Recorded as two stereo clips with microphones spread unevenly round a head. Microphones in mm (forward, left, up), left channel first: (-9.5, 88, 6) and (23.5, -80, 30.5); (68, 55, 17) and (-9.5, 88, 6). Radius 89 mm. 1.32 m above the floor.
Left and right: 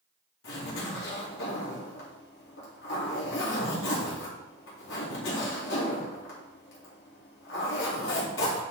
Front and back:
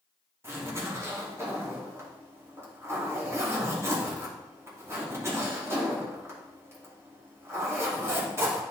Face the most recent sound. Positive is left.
turn(degrees=100)